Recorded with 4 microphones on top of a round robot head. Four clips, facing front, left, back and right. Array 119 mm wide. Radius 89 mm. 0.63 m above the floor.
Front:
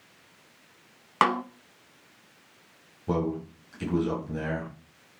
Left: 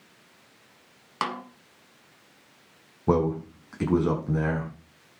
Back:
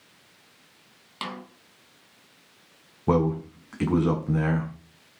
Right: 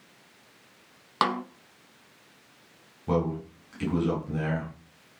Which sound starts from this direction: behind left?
A man speaking, at 3.1 s.